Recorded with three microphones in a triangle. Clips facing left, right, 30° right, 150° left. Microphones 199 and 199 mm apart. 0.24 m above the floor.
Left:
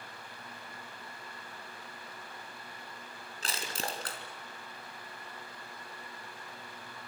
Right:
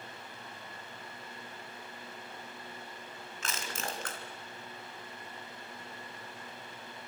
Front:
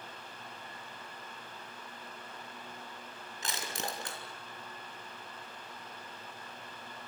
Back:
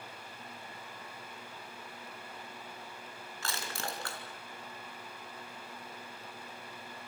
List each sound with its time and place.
3.4 s crushing: 40° left, 3.5 m